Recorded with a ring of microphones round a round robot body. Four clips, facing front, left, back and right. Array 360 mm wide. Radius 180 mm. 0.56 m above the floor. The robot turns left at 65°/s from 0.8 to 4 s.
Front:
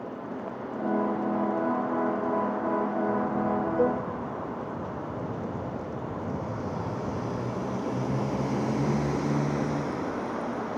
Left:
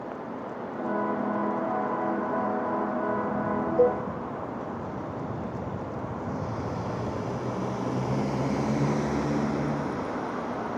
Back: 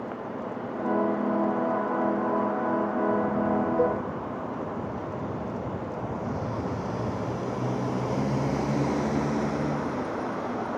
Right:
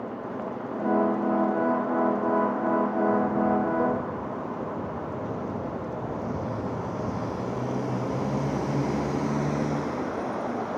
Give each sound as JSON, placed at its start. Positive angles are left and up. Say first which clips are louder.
{"t": 3.8, "sound": "a cowbell", "louder": "left 4 dB, front 2 dB", "azimuth_deg": 105, "distance_m": 2.0}